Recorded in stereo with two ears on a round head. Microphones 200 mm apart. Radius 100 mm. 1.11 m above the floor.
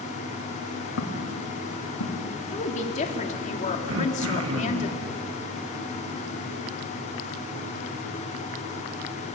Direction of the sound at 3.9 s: 70° right (ahead or behind).